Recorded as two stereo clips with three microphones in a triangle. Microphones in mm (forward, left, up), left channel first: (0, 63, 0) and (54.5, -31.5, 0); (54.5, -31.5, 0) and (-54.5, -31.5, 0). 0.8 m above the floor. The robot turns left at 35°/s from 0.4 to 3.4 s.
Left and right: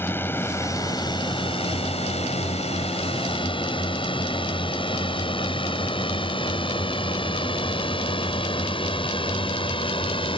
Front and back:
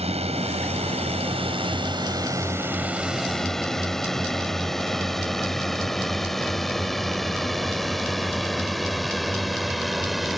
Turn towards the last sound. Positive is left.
turn(degrees=90)